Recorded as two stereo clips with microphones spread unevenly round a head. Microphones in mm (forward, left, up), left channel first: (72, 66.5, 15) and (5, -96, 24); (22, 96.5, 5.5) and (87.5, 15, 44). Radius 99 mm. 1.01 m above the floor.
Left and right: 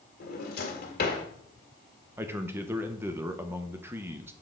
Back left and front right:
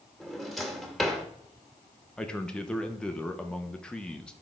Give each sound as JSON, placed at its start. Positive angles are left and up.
{"t": 0.2, "sound": "a drawer", "azimuth_deg": 35, "distance_m": 1.8}
{"t": 2.2, "sound": "a man speaking", "azimuth_deg": 175, "distance_m": 0.7}